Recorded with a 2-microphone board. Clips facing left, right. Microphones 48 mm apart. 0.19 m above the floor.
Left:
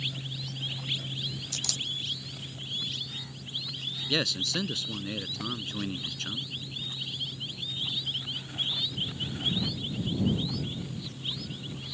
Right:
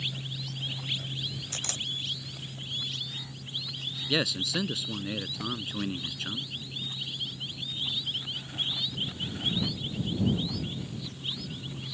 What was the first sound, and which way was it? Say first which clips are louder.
A camera shutter: even; 35° right (ahead or behind).